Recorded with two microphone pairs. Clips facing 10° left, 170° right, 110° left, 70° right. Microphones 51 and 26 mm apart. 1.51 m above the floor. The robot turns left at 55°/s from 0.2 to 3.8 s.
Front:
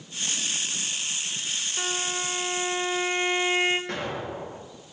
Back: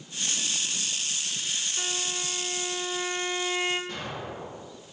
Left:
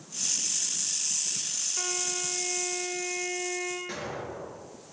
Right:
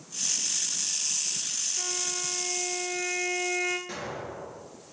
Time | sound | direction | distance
1.8 | a violin | 75° left | 1.7 m
3.9 | an explosion | 35° left | 3.5 m